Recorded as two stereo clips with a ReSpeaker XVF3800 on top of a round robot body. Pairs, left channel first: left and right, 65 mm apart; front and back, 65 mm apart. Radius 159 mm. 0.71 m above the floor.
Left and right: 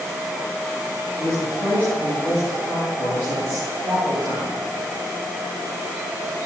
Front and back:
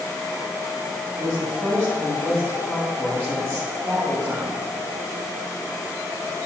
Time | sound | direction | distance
1.2 | a woman speaking | 140° right | 5 m